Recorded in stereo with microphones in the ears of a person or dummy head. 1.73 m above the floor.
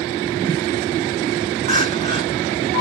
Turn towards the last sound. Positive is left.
turn(degrees=-45)  # may be behind; listen again after turning